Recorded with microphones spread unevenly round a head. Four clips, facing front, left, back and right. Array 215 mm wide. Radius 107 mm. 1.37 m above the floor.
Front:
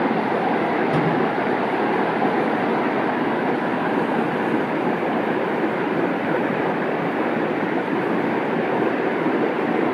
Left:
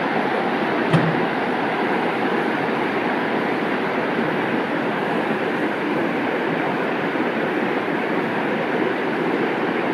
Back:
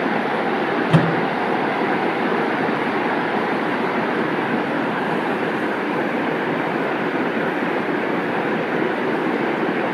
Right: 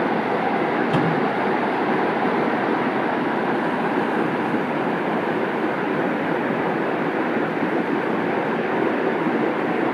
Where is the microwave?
150° left, 6 m.